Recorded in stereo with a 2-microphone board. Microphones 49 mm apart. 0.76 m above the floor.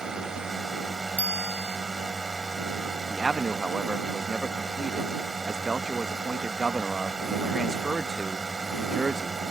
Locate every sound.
0.0 s a drone: 10° right (ahead or behind)
1.2 s a bicycle bell: 35° right (ahead or behind)
3.1 s a man speaking: 10° right (ahead or behind)